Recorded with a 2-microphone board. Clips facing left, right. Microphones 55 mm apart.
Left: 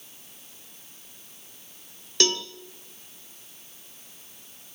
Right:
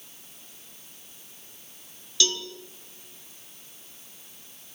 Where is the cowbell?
45° left (ahead or behind), 1.6 m.